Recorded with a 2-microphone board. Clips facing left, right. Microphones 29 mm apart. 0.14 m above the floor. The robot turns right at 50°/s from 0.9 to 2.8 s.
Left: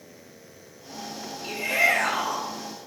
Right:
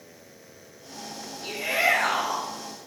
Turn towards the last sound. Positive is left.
turn(degrees=-75)